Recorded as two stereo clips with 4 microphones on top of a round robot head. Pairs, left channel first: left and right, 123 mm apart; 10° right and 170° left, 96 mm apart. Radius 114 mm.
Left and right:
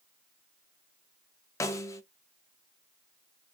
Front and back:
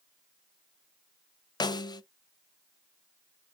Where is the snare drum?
30° left, 0.5 m.